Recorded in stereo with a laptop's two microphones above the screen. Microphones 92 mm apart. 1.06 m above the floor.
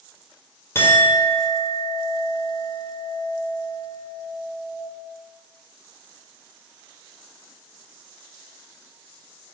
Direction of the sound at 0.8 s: 25° left (ahead or behind).